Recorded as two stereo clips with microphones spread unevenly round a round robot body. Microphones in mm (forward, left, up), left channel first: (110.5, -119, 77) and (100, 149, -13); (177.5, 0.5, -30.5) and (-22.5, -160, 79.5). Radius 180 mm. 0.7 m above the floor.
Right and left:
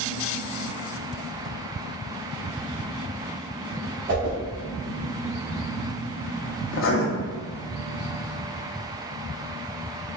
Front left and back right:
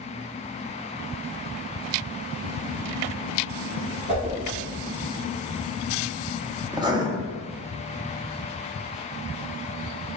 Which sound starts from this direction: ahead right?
Writing, at 6.7 s.